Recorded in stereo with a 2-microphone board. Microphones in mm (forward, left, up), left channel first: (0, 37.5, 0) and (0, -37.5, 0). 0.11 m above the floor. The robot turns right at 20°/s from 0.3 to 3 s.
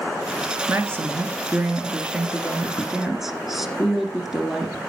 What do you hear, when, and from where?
0.7 s a woman speaking: 50° right, 1.7 m; by 4.8 s 5° right, 1.7 m